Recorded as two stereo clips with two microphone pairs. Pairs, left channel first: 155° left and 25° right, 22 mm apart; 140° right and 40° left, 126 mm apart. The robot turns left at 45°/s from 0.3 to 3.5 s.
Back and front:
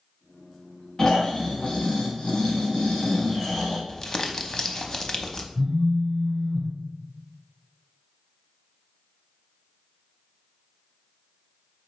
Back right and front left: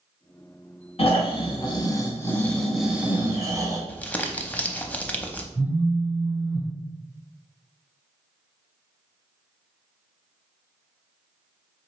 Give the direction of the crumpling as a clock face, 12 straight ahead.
7 o'clock.